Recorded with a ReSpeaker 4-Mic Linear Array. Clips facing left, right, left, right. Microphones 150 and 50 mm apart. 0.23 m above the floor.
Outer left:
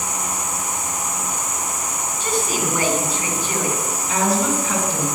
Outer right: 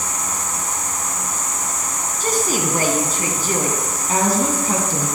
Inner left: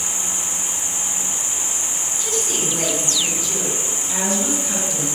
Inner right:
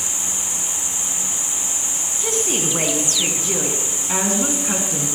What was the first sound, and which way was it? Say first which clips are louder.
An insect: outer left 1 dB, inner left 1 dB; 85° right.